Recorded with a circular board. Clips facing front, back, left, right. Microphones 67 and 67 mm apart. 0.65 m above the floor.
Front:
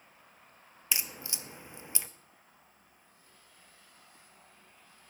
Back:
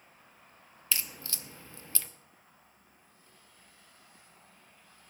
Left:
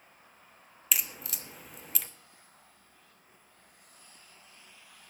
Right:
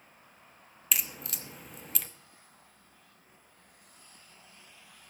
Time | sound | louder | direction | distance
0.9 | a crack | even, even | straight ahead | 0.8 m